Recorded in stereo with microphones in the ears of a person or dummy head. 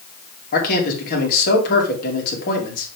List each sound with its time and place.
0.5 s a man speaking: 50° left (ahead or behind), 3.5 m